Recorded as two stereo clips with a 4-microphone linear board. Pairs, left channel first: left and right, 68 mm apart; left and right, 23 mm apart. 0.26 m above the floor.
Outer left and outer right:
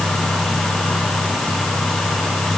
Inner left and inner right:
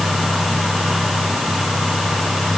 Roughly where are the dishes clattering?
No dishes clattering in this recording.